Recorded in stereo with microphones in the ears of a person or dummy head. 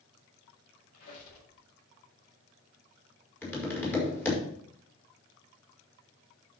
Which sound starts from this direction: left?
A squeak, at 0.9 s.